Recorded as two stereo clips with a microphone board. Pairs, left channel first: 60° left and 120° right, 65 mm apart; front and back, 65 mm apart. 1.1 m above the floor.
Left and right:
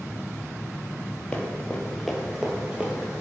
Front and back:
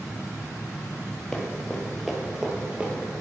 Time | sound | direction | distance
1.3 | running footsteps | 45° left | 1.1 m